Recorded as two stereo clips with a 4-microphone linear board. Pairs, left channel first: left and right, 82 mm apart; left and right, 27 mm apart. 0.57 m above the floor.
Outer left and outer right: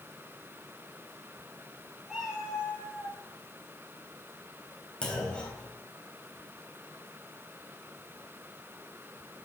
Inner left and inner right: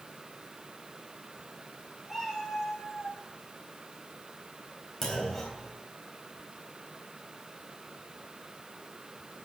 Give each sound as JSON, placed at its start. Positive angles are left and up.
{"t": 2.1, "sound": "a cat meowing", "side_deg": -5, "distance_m": 6.0}
{"t": 5.0, "sound": "a clunk", "side_deg": 10, "distance_m": 3.0}